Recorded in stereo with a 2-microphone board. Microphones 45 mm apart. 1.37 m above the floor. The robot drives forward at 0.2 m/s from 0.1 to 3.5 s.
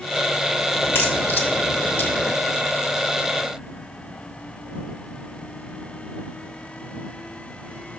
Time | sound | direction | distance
0.8 | a crack | 55° left (ahead or behind) | 1.4 m